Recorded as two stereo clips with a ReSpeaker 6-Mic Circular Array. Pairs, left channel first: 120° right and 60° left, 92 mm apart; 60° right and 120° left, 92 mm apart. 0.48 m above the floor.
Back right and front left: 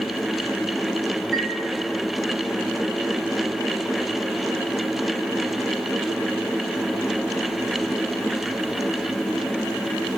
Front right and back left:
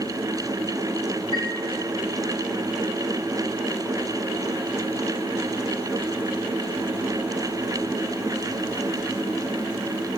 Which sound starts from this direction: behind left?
A chime, at 1.3 s.